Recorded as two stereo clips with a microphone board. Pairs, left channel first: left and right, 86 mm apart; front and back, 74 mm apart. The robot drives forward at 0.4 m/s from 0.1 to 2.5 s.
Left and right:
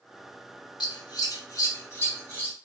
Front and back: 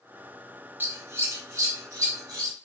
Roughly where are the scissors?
Behind left.